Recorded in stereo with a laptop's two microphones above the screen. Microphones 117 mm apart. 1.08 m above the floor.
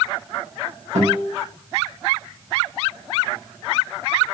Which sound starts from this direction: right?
A guitar, at 0.9 s.